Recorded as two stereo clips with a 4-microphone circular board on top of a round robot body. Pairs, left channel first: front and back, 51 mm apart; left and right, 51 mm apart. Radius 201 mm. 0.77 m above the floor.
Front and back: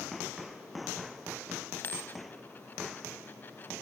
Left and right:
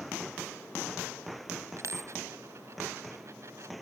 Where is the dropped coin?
55° right.